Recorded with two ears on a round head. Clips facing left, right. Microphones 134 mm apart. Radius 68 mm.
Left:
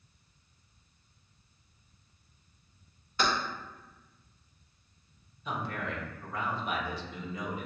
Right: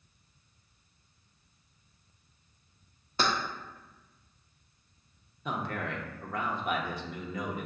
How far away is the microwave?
I don't hear a microwave.